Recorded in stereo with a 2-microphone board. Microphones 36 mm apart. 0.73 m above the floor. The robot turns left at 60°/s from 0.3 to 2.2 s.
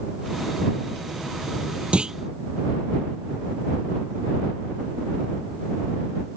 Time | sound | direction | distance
1.9 | a clunk | 30° right (ahead or behind) | ?